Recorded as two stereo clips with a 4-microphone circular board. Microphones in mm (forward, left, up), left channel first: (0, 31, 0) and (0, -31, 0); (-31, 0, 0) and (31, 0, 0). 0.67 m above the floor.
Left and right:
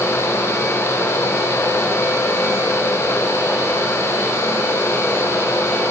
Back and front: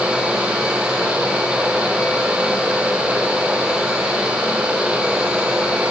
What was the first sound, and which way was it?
Only background noise.